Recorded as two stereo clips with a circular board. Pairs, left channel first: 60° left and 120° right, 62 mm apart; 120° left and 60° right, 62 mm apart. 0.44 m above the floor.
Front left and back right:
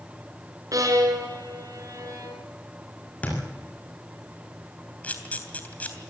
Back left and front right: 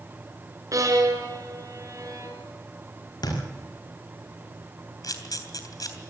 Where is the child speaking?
No child speaking in this recording.